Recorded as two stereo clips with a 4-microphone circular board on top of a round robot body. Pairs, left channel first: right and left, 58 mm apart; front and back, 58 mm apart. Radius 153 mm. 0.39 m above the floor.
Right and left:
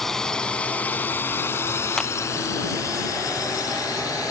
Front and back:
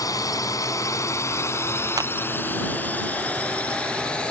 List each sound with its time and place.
0.0 s a drone: 5° right; by 4.3 s 75° right
2.0 s a clap: 170° right